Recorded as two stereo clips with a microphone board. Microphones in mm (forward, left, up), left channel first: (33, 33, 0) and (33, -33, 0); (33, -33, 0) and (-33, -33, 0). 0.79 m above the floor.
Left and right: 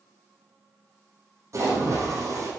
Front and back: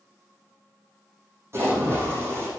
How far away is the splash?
About 6 m.